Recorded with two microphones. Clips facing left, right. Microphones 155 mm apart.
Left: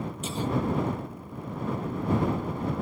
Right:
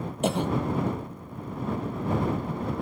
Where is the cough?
65° right (ahead or behind).